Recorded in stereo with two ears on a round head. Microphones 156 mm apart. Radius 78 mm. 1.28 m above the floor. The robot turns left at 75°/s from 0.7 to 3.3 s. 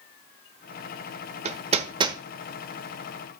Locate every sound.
1.4 s hammering: 35° right (ahead or behind), 1.1 m; by 2.2 s 20° right (ahead or behind), 1.1 m